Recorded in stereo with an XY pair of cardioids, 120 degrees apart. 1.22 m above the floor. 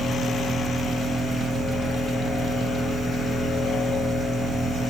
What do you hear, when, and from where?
0.0 s a machine running: 30° right, 4.5 m